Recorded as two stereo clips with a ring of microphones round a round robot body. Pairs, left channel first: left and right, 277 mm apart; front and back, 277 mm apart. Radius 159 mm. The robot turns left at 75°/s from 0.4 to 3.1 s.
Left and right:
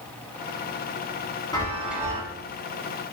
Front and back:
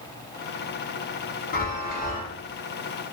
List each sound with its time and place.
1.5 s a chime: 25° left, 0.8 m; by 2.2 s 30° right, 0.8 m